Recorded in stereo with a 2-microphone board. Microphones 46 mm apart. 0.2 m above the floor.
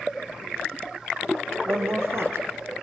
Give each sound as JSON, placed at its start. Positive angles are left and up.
{"t": 1.6, "sound": "a woman speaking", "side_deg": -60, "distance_m": 4.5}